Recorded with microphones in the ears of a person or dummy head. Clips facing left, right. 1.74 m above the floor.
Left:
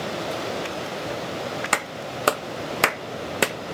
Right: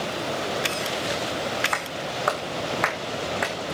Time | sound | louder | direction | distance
1.7 | a clap | even | 40° left (ahead or behind) | 0.7 m